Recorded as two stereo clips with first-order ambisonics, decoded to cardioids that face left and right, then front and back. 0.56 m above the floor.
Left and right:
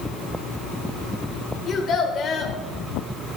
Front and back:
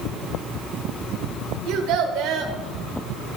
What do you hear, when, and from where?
1.7 s a child speaking: 150° left, 1.2 m